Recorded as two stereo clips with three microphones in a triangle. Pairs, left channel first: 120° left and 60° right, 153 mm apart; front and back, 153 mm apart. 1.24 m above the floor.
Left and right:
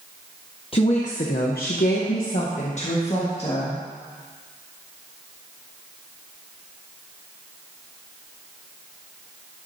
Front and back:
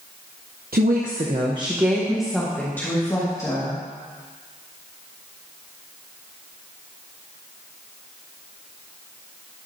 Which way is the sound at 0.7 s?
170° left.